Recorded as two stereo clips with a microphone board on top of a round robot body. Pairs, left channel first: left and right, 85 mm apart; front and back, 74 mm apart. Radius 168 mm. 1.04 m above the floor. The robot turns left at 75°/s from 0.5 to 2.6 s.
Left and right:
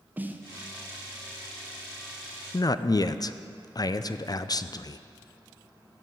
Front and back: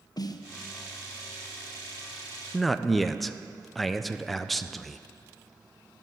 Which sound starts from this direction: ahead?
A snare drum, at 0.2 s.